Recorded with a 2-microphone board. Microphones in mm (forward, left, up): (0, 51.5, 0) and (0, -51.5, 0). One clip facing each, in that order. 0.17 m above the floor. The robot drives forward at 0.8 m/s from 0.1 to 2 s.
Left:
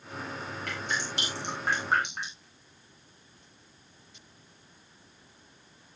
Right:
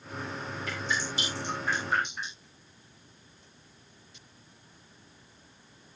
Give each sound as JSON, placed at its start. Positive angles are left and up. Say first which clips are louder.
{"t": 0.7, "sound": "dripping", "louder": "right 1 dB", "side_deg": 65, "distance_m": 9.5}